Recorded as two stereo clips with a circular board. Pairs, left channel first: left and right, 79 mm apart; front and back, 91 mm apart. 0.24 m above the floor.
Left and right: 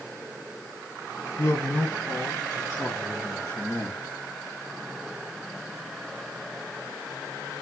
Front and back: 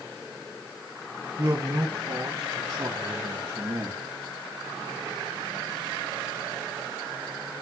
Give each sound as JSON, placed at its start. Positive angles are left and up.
{"t": 1.4, "sound": "a man speaking", "azimuth_deg": 135, "distance_m": 1.4}